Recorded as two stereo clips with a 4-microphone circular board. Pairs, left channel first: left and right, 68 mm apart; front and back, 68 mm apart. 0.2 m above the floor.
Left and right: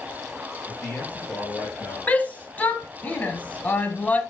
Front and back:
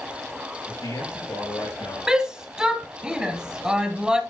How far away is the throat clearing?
I don't hear throat clearing.